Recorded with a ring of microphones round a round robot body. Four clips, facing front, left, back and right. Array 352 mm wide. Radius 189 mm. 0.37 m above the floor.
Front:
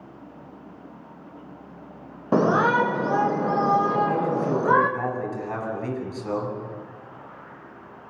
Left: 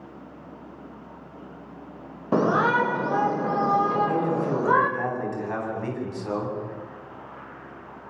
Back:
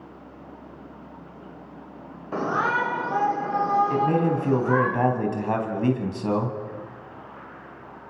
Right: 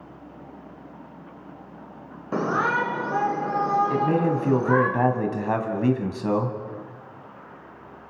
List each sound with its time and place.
2.3 s a shout: 25° left, 1.8 m
3.9 s a man speaking: 130° right, 4 m